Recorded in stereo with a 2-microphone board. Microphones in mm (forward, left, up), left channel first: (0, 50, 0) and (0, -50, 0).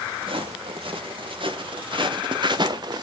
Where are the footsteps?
60° right (ahead or behind), 2.5 m; by 3.0 s 45° right (ahead or behind), 1.0 m.